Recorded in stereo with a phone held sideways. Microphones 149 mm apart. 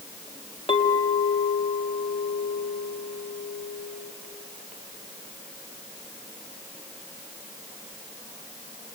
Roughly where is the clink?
Left.